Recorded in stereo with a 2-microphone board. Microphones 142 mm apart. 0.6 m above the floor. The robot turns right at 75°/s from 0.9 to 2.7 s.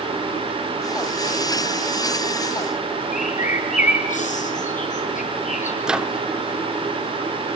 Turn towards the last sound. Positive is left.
turn(degrees=-5)  # may be behind; listen again after turning